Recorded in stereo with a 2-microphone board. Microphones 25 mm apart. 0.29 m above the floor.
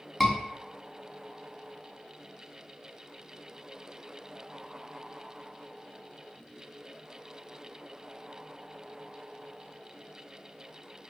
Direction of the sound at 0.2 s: 10° left (ahead or behind).